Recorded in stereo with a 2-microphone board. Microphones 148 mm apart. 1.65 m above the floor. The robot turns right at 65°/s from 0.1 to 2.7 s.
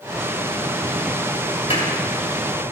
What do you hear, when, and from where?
1.7 s a clap: 50° left (ahead or behind), 3.5 m; by 1.9 s 60° left (ahead or behind), 3.5 m